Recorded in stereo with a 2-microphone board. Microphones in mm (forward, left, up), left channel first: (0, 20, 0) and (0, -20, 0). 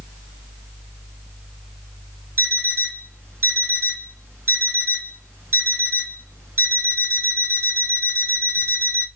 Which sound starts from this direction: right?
An alarm clock, at 2.4 s.